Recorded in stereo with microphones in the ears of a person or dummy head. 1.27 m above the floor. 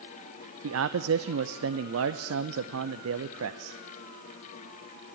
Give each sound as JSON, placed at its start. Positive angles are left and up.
{"t": 0.6, "sound": "a man speaking", "side_deg": -80, "distance_m": 0.7}